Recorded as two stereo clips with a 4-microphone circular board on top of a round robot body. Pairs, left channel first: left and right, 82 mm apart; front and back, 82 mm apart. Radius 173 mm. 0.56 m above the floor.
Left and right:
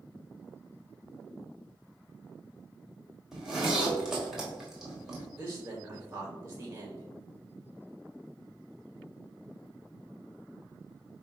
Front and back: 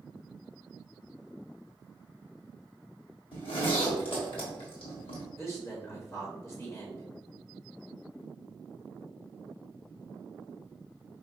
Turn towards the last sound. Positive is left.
turn(degrees=-40)